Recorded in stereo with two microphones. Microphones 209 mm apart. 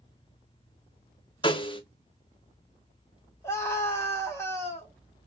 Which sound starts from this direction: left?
A snare drum, at 1.4 s.